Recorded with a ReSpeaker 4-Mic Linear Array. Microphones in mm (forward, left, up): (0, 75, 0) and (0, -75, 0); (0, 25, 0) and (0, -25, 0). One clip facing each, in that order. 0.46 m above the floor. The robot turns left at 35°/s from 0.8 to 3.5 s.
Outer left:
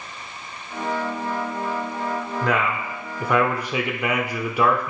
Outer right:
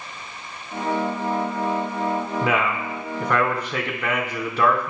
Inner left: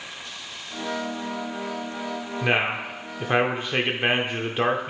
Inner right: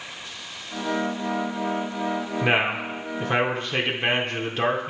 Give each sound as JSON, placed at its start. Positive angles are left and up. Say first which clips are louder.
{"t": 2.4, "sound": "a man speaking", "louder": "outer left 2 dB, even", "azimuth_deg": -165, "distance_m": 0.8}